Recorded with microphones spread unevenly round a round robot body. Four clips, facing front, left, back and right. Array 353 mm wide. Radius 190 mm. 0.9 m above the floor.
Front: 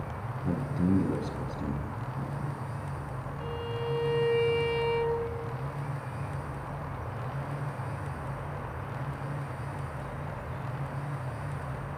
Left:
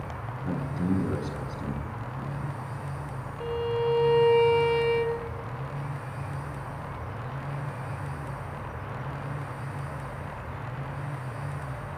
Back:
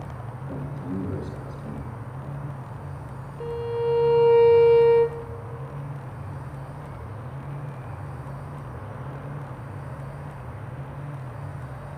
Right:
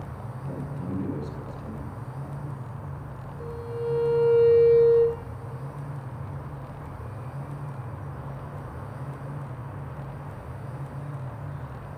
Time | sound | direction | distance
0.4 | a man speaking | 30° left | 8 m
3.4 | a violin | 150° left | 3.5 m